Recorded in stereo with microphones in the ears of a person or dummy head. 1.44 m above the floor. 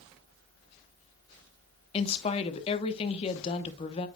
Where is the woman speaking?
35° left (ahead or behind), 1.0 m.